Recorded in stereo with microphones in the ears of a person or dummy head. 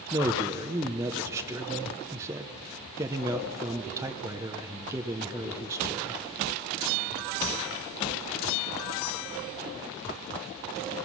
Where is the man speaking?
15° right (ahead or behind), 0.8 m.